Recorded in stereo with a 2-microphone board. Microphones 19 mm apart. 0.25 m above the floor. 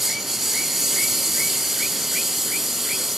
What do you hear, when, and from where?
0.0 s a lawn mower: 20° right (ahead or behind)